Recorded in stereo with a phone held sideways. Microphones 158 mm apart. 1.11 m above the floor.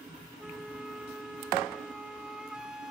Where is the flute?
5° right (ahead or behind), 1.1 m.